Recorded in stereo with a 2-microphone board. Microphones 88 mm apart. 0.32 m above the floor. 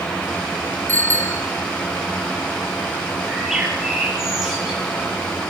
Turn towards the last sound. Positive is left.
turn(degrees=-5)  # may be behind; listen again after turning